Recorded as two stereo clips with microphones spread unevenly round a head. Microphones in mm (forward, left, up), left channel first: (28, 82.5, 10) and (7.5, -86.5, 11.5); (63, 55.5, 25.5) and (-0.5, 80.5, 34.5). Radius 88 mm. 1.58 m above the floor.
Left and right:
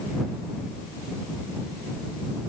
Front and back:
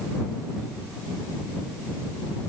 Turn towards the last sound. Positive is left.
No sound to turn to.